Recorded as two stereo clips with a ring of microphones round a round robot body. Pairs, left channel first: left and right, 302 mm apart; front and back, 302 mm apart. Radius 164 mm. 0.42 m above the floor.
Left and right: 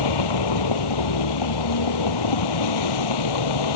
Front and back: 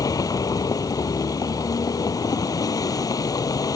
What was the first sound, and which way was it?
A vehicle, 80° left.